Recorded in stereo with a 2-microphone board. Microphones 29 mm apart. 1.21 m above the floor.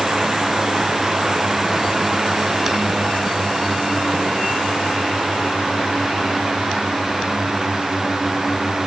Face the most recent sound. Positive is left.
No sound to turn to.